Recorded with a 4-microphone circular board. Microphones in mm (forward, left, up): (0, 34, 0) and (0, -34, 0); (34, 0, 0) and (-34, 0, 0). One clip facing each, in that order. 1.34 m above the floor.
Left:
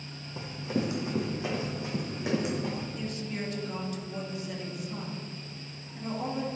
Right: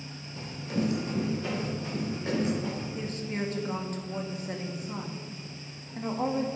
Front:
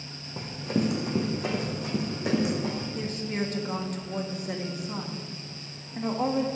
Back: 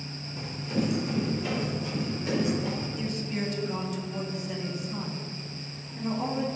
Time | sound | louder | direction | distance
0.4 | running footsteps | even, front 2 dB | 30° left | 3 m
3.0 | a woman speaking | right 2 dB, front 1 dB | 40° right | 1.7 m